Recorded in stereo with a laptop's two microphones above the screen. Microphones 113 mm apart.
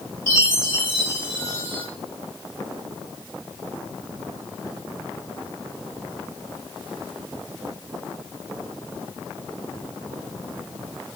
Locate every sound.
0.3 s a chime: 25° left (ahead or behind), 2 m